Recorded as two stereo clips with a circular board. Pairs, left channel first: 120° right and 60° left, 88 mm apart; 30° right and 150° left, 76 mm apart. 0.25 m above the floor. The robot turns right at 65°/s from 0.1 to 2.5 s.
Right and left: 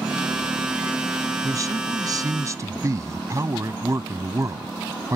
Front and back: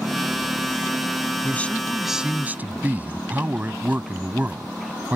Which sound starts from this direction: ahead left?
A man speaking, at 1.4 s.